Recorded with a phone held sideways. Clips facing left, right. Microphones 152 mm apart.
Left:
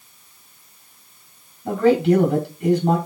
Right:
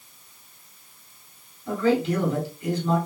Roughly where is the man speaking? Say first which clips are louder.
Left 6 dB; left.